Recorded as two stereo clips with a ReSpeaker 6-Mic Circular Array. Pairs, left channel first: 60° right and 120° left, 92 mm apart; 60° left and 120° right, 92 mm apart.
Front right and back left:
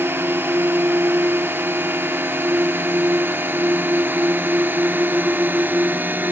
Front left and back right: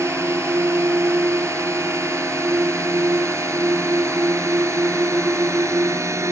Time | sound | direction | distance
0.0 | a drone | 175° right | ?